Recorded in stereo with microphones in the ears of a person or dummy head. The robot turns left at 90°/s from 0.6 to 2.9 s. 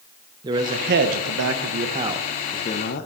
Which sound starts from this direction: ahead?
A man speaking, at 0.4 s.